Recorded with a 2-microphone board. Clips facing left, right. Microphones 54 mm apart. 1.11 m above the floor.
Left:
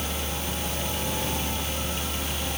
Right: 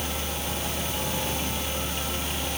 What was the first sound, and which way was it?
Only background noise.